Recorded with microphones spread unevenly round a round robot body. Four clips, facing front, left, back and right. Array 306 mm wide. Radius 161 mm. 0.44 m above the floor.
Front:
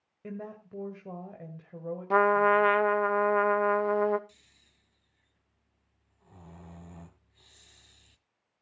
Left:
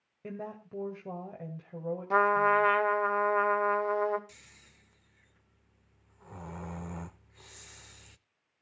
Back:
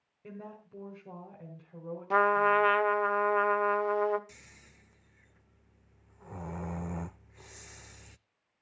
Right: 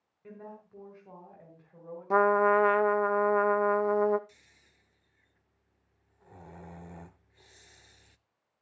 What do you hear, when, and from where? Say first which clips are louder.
0.2 s a woman speaking: left 6 dB, front 5 dB; 50° left, 2 m
2.1 s a trumpet: right 2 dB, front 2 dB; 50° right, 1.0 m
4.3 s snoring: left 4 dB, back 8 dB; 160° left, 0.5 m